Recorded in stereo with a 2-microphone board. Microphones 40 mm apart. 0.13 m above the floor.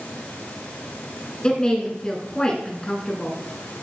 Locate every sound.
1.4 s a woman speaking: 20° left (ahead or behind), 1.2 m